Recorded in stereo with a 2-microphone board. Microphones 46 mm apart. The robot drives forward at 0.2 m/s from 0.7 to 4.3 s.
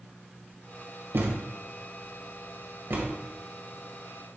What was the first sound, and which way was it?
A thud, 70° right (ahead or behind).